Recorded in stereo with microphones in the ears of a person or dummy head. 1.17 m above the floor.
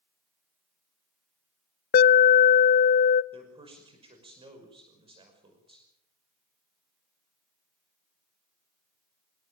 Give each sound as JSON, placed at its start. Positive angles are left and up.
{"t": 1.9, "sound": "an alarm", "side_deg": 50, "distance_m": 0.6}
{"t": 3.3, "sound": "a man speaking", "side_deg": -25, "distance_m": 6.0}